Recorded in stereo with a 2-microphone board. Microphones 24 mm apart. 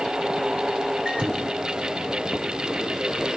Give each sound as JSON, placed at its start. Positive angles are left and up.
{"t": 1.1, "sound": "a microwave", "side_deg": -45, "distance_m": 2.5}